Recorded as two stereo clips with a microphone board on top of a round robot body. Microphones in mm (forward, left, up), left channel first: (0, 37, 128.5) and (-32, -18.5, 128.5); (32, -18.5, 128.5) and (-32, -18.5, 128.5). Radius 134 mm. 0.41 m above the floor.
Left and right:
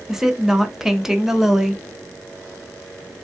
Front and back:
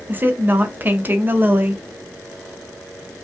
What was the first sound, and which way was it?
A woman speaking, 165° left.